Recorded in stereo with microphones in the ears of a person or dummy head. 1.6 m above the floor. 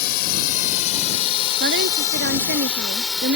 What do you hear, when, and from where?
0.0 s a drone: 60° left (ahead or behind); by 3.4 s centre (ahead or behind)
1.6 s a woman speaking: 55° right (ahead or behind)